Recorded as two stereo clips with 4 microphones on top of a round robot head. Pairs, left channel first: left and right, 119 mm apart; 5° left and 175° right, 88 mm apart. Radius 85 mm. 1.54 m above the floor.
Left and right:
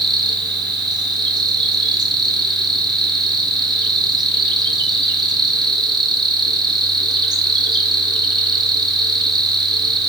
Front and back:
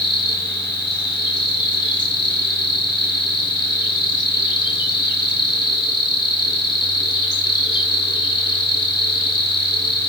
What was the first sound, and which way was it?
An insect, 35° right.